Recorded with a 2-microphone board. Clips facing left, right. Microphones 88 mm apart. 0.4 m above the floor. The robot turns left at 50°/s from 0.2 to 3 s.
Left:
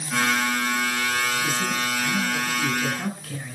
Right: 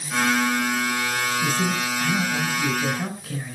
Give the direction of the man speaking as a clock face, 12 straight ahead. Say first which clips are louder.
Right 2 dB; 3 o'clock.